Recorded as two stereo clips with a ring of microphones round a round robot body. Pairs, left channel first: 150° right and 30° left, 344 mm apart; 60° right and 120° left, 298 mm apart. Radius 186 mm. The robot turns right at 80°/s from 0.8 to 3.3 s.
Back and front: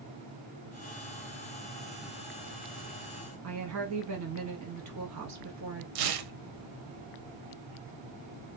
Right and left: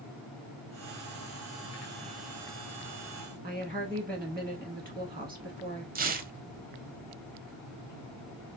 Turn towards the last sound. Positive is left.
turn(degrees=55)